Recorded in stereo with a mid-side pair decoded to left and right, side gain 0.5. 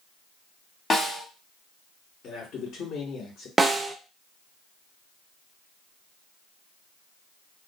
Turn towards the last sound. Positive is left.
turn(degrees=-15)